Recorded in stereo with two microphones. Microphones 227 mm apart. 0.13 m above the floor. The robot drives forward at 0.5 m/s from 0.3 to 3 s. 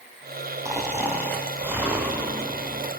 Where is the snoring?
10° right (ahead or behind), 2.5 m.